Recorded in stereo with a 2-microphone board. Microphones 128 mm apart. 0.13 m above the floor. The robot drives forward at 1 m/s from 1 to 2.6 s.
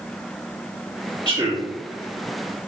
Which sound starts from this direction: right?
A man speaking, at 1.2 s.